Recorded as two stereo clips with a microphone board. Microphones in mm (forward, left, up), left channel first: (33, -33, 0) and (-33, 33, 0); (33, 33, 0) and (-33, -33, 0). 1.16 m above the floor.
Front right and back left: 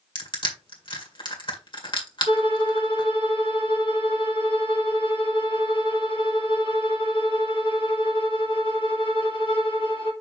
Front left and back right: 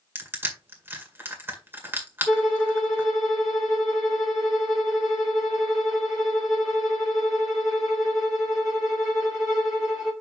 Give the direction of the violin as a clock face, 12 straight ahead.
2 o'clock.